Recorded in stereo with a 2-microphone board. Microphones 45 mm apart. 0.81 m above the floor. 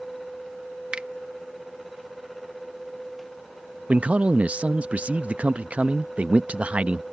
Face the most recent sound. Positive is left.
turn(degrees=-30)  # may be behind; listen again after turning